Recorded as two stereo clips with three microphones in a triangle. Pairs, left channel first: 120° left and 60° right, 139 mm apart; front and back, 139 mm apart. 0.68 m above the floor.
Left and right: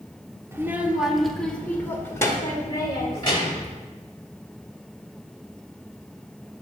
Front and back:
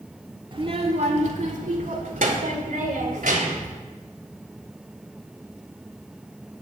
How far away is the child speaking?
About 1.2 m.